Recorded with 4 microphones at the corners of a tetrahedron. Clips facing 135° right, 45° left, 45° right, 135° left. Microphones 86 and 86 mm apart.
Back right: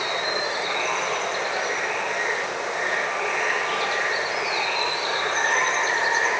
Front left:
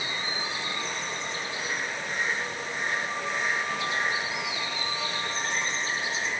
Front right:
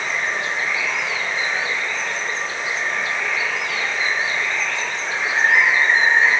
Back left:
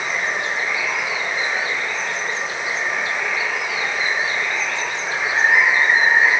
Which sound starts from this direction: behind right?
Running water, at 0.0 s.